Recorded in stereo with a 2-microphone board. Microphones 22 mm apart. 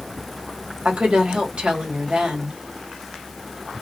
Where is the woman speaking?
60° right (ahead or behind), 1.8 m.